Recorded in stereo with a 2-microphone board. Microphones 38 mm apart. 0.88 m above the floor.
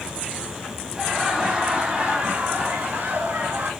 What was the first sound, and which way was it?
Laughter, 20° right (ahead or behind).